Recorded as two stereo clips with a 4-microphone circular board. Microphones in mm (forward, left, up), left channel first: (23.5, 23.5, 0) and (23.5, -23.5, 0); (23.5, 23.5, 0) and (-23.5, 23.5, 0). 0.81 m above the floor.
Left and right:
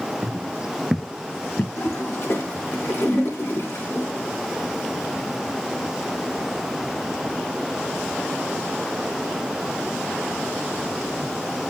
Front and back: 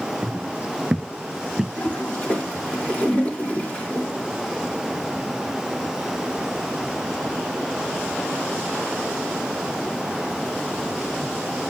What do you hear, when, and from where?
0.2 s footsteps: 130° right, 1.1 m; by 1.7 s 90° left, 1.0 m
1.8 s a toilet flushing: 60° left, 3.5 m